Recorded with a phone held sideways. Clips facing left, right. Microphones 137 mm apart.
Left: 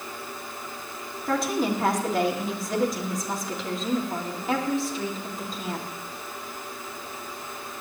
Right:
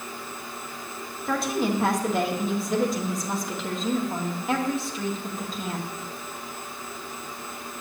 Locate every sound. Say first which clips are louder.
1.3 s a woman speaking: even; centre (ahead or behind), 2 m